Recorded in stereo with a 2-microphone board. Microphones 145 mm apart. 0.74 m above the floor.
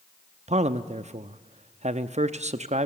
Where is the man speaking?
50° right (ahead or behind), 0.8 m.